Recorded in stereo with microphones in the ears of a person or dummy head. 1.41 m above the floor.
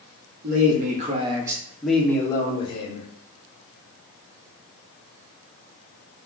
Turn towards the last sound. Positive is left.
turn(degrees=35)  # may be behind; listen again after turning